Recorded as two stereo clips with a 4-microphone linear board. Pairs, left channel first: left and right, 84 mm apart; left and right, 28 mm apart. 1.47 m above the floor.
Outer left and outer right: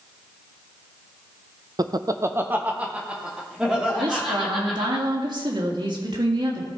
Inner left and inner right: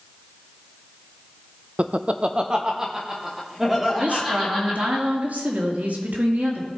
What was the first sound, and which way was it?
Laughter, 45° right (ahead or behind).